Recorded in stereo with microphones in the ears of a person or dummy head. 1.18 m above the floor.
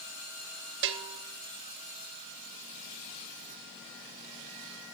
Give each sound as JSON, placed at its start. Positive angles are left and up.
{"t": 0.8, "sound": "a bell", "side_deg": -65, "distance_m": 1.0}